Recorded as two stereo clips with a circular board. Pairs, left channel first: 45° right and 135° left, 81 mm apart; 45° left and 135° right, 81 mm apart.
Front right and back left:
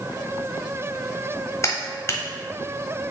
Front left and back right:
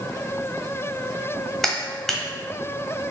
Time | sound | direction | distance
1.6 | a clap | 35° right | 1.2 m